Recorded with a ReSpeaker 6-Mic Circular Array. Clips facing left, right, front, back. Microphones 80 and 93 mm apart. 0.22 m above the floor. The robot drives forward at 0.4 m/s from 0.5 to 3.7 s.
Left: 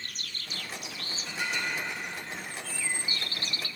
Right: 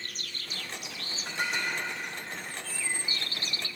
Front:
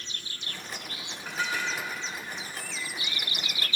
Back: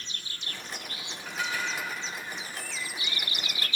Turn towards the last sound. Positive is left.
turn(degrees=-90)